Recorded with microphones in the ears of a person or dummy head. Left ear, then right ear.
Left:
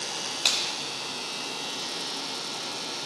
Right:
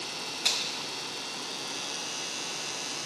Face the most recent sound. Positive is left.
turn(degrees=25)  # may be behind; listen again after turning